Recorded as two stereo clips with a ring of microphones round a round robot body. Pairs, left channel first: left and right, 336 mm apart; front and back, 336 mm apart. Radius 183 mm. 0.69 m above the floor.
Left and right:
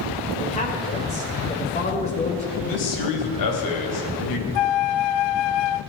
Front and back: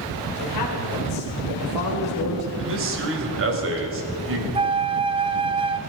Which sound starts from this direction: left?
A flute, at 4.5 s.